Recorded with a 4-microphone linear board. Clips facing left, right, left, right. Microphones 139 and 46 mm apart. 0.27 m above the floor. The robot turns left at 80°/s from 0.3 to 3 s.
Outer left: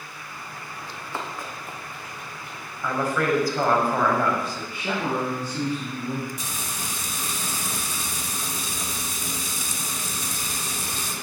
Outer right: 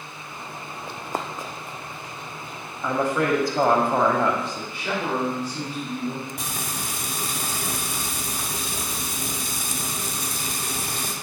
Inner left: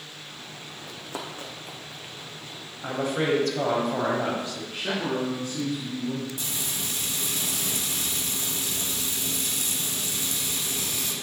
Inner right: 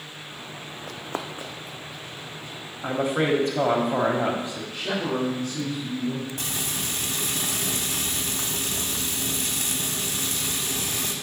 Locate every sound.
0.9 s running footsteps: 60° right (ahead or behind), 0.6 m; by 2.6 s 75° left (ahead or behind), 2 m
2.8 s a woman speaking: 15° right (ahead or behind), 1.1 m; by 4.6 s 25° right (ahead or behind), 1.1 m
4.7 s a man speaking: 45° left (ahead or behind), 2.5 m
6.4 s frying: 55° right (ahead or behind), 0.9 m